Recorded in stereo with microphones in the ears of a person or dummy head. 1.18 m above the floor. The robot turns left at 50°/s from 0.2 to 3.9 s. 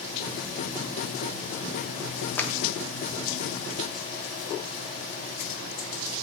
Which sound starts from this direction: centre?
A clap, at 2.4 s.